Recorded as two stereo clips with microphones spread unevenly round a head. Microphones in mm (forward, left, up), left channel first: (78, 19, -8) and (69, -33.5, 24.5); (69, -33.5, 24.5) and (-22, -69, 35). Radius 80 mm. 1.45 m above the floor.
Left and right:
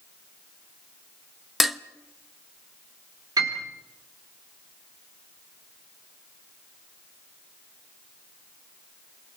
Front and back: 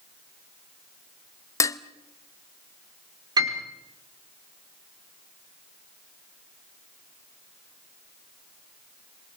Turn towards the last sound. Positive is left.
turn(degrees=-110)